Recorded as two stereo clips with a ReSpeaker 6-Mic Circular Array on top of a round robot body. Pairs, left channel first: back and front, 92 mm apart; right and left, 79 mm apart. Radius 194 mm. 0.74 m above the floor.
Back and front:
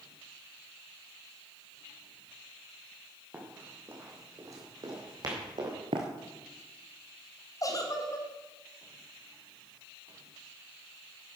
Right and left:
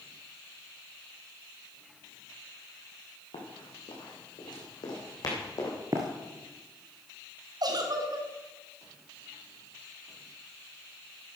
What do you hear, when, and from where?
3.3 s running footsteps: 75° right, 3.5 m; by 5.7 s 40° right, 3.5 m
5.9 s running footsteps: 30° left, 1.1 m
7.6 s a giggle: 125° left, 1.7 m